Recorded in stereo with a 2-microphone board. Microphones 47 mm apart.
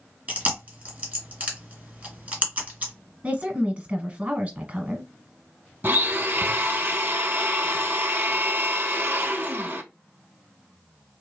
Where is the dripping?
I don't hear dripping.